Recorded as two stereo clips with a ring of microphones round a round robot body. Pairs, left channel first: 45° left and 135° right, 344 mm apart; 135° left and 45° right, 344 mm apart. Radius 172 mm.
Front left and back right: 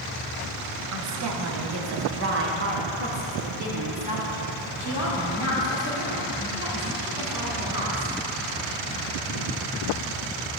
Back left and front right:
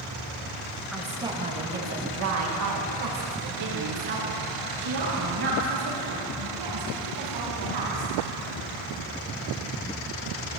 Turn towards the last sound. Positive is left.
turn(degrees=-60)